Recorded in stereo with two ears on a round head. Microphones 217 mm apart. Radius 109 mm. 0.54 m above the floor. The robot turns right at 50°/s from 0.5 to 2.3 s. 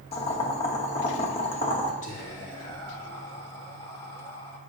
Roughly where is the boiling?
Left.